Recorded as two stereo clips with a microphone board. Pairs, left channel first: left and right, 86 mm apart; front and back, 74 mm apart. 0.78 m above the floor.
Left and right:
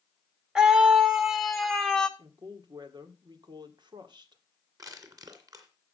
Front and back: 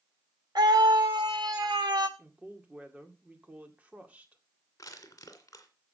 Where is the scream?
170° right, 2.5 m; by 2.1 s 170° left, 2.0 m.